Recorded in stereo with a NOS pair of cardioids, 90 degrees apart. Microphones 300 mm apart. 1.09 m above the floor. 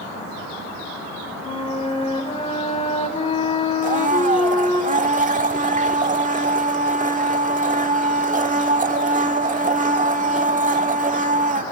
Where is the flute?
20° left, 3.5 m.